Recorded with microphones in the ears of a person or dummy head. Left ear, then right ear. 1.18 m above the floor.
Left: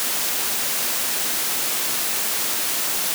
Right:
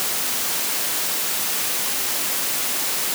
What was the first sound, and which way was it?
Only background noise.